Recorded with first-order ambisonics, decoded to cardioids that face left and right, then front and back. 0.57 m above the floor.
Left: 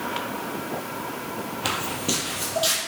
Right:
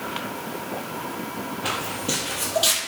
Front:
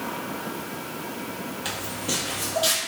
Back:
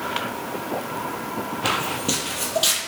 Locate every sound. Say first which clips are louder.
1.6 s footsteps: left 1 dB, back 7 dB; 125° left, 0.7 m; by 2.8 s 140° right, 0.7 m